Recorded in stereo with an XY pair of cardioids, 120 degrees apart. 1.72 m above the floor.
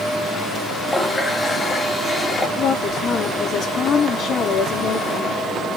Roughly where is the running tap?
Ahead left.